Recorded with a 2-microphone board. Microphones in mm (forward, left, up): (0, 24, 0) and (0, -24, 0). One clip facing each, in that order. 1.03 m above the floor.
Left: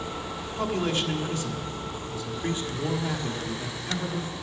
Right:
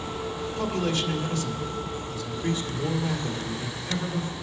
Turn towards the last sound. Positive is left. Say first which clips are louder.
# left 1 dB
turn(degrees=30)  # may be behind; listen again after turning